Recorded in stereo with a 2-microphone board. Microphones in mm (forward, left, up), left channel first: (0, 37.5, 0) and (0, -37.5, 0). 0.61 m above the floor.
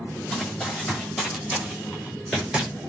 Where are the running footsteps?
5° right (ahead or behind), 8.5 m; by 2.7 s 15° right (ahead or behind), 7 m.